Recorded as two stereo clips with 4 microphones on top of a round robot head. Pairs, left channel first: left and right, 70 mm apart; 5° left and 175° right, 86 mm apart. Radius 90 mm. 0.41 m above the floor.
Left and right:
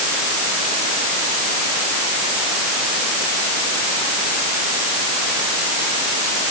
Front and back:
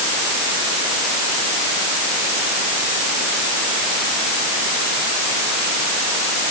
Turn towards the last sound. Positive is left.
No sound to turn to.